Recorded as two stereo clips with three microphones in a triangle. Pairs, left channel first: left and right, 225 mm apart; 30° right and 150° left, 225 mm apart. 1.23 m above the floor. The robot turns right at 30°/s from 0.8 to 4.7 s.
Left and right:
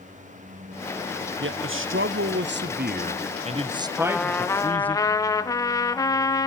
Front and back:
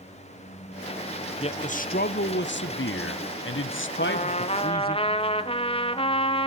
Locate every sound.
1.4 s a man speaking: 90° right, 0.7 m; by 5.0 s 5° left, 0.7 m
4.0 s a trumpet: straight ahead, 0.7 m; by 6.5 s 20° left, 0.7 m